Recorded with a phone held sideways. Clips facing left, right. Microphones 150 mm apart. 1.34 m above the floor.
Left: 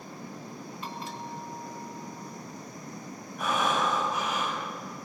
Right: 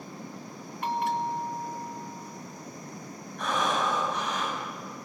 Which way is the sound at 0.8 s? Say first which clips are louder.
Right 12 dB; 60° right (ahead or behind).